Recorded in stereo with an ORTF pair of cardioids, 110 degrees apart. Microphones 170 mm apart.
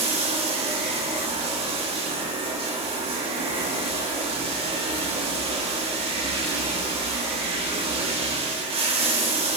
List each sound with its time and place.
0.0 s running water: 35° right, 1.4 m